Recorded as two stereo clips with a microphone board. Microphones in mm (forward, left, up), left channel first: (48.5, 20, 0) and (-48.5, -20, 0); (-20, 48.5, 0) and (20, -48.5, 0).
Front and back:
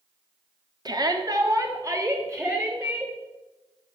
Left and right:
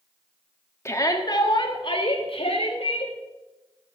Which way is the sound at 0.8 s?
170° left.